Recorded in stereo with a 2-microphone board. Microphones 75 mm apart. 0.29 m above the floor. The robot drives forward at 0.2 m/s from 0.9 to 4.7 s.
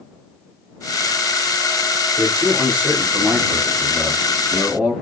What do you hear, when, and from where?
2.2 s a man speaking: 25° right (ahead or behind), 1.1 m; by 4.9 s 20° right (ahead or behind), 1.4 m